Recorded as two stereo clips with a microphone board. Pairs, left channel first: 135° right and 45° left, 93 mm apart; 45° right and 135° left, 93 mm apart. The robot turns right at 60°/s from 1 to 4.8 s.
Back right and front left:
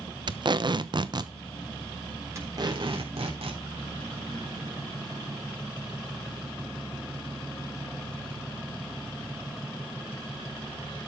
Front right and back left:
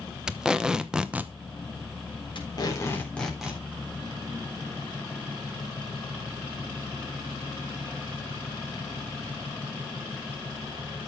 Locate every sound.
0.3 s tape being pulled: 55° left, 0.9 m; by 1.3 s 75° left, 0.9 m
2.4 s tape being pulled: 15° right, 3.5 m; by 3.6 s 60° left, 3.5 m